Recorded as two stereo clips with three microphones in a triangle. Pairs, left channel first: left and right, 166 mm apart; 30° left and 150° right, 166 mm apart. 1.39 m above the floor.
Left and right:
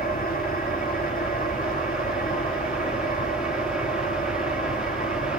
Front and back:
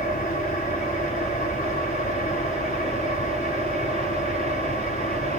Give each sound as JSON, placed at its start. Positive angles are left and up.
{"t": 0.0, "sound": "an engine running", "azimuth_deg": 60, "distance_m": 3.0}